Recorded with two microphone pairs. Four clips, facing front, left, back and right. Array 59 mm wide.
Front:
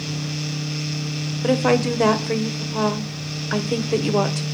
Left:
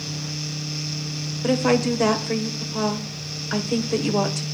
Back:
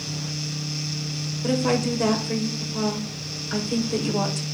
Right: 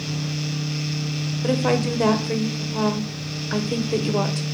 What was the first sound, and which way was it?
A woman speaking, 10° left.